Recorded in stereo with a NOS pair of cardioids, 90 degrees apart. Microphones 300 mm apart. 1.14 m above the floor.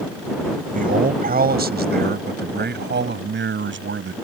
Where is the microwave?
No microwave in this recording.